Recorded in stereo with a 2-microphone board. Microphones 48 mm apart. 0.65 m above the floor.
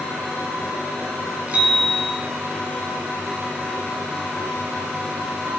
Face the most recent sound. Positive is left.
turn(degrees=-25)  # may be behind; listen again after turning